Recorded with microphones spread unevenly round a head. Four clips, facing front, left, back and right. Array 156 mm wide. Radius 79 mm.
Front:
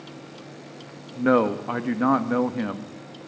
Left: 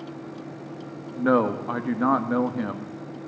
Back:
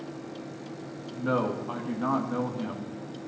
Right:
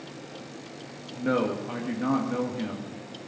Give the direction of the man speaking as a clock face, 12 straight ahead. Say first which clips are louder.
Left 5 dB, front 8 dB; 11 o'clock.